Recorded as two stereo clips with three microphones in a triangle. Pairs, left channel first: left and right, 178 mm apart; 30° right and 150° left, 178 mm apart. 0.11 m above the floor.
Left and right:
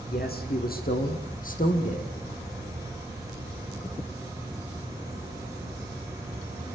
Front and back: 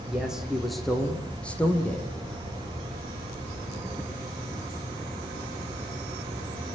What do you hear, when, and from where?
0.1 s a man speaking: 65° left, 6 m; by 2.1 s 50° left, 5.5 m